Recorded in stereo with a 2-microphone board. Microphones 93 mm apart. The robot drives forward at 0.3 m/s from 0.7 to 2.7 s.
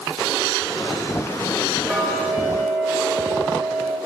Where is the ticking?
Centre (ahead or behind), 1.0 m.